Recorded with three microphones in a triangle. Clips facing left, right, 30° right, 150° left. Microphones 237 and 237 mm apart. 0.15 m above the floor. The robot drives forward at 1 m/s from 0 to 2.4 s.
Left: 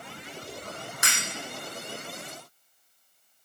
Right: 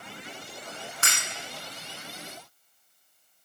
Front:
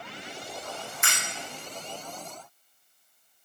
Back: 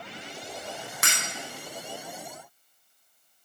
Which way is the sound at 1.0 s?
165° left.